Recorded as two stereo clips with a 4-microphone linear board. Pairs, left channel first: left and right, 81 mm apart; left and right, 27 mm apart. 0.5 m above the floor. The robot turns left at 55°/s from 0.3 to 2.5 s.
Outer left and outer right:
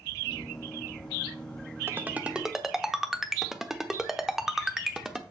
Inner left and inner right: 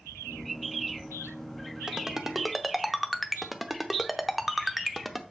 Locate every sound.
1.9 s a ringtone: 30° right (ahead or behind), 0.8 m; by 5.2 s 5° right (ahead or behind), 0.8 m